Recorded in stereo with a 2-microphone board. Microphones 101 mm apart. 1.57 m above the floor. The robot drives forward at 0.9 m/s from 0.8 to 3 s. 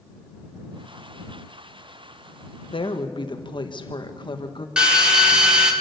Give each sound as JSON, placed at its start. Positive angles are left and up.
{"t": 2.7, "sound": "a woman speaking", "side_deg": 60, "distance_m": 1.4}
{"t": 4.8, "sound": "a drill", "side_deg": -10, "distance_m": 1.9}